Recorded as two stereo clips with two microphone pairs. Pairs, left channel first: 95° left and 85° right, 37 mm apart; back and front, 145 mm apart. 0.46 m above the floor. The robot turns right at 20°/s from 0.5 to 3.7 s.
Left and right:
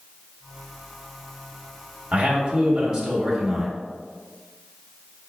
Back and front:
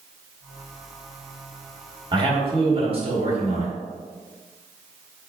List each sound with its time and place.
2.1 s a man speaking: 40° right, 1.2 m; by 3.8 s 10° right, 1.2 m